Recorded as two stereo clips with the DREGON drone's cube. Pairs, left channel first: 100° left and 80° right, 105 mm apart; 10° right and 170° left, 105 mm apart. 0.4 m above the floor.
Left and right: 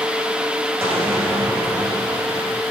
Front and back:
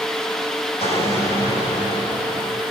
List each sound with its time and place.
0.8 s an explosion: 10° right, 8.5 m